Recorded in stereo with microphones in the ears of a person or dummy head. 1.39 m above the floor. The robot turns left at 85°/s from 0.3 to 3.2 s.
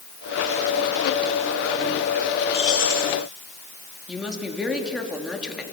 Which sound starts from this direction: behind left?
Keys jangling, at 2.5 s.